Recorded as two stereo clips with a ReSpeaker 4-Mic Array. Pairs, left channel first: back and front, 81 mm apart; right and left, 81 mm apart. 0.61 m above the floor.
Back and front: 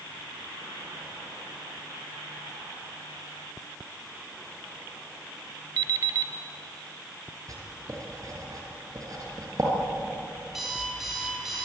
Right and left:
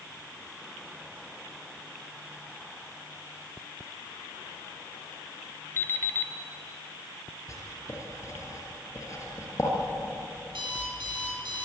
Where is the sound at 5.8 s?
30° right, 1.1 m.